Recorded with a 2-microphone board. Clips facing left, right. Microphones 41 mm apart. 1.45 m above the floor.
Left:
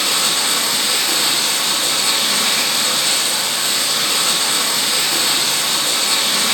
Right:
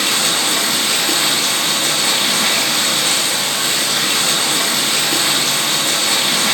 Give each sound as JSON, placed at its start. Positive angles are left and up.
{"t": 0.0, "sound": "running water", "side_deg": -35, "distance_m": 3.0}